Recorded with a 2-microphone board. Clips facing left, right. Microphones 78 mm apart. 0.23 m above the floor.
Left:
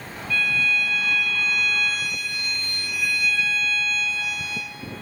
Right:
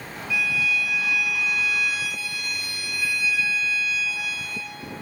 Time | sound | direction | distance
0.3 | a violin | 5° right (ahead or behind) | 2.5 m